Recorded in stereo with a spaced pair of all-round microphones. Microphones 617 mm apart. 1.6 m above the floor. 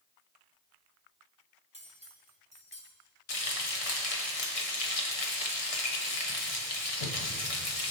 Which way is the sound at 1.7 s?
10° right (ahead or behind).